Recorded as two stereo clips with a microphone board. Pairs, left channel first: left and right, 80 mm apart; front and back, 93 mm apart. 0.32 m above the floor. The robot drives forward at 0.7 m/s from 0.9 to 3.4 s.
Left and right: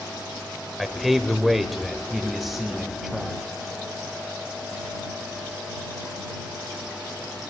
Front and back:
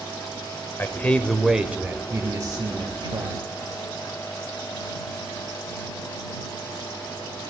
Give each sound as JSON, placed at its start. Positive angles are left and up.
{"t": 0.8, "sound": "a man speaking", "azimuth_deg": 0, "distance_m": 0.9}